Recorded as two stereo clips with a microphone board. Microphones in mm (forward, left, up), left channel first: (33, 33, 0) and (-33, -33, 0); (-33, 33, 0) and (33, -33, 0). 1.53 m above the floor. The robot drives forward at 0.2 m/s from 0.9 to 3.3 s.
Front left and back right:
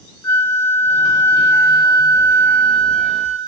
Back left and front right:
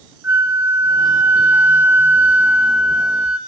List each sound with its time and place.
0.2 s a flute: 5° left, 1.1 m; by 3.4 s 15° left, 0.8 m